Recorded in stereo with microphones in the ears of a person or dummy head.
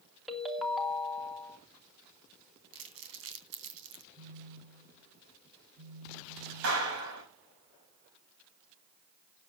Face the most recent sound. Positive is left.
turn(degrees=-70)  # may be behind; listen again after turning